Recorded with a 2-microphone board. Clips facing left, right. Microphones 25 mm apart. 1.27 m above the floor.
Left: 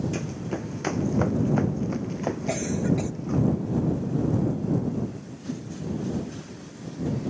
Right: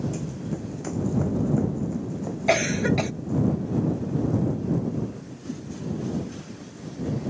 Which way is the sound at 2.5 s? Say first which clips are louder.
Right 7 dB; 65° right (ahead or behind).